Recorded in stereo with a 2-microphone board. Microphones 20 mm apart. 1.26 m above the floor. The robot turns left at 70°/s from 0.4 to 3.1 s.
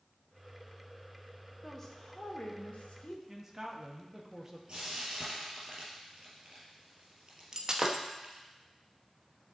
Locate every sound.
1.6 s a woman speaking: 175° left, 1.2 m; by 3.2 s 70° left, 1.2 m
3.3 s a man speaking: 15° right (ahead or behind), 1.2 m
4.7 s frying: 50° right (ahead or behind), 3.5 m
7.5 s breaking glass: 30° right (ahead or behind), 0.8 m